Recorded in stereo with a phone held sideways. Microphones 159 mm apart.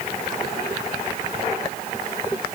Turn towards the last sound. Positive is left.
No sound to turn to.